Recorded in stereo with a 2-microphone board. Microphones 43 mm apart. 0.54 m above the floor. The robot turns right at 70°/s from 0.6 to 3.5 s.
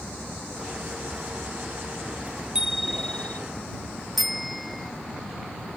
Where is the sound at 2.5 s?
20° right; by 3.4 s 40° left.